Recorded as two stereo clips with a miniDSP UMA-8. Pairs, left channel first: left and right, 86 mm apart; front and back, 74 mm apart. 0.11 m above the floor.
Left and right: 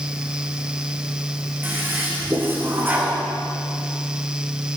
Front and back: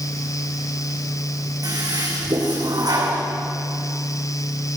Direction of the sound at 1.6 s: 155° right.